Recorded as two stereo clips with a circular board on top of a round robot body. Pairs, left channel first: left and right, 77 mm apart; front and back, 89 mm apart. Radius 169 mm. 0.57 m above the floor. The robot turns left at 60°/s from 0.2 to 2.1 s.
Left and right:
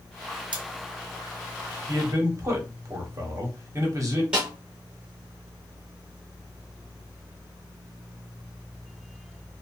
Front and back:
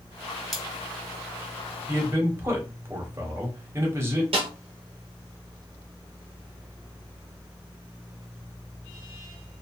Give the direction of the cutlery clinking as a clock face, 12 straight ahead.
3 o'clock.